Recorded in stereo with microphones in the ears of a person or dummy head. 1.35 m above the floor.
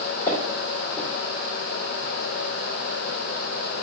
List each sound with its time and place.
0.3 s footsteps: 15° left (ahead or behind), 1.9 m